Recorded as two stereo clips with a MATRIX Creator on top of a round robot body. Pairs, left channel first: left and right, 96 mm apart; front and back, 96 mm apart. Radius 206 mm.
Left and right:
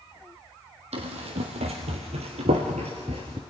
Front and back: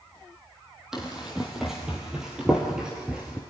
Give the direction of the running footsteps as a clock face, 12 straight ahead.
3 o'clock.